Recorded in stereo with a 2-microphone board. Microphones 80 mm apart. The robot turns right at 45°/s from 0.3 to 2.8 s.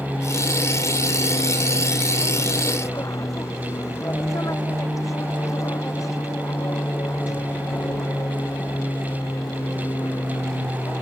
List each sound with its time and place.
0.0 s an aircraft: 25° left; by 11.0 s 140° left